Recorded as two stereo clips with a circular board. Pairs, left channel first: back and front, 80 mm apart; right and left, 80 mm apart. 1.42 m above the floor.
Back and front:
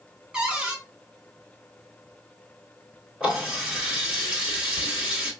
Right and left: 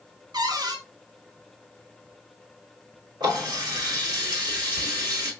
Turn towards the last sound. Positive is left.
turn(degrees=75)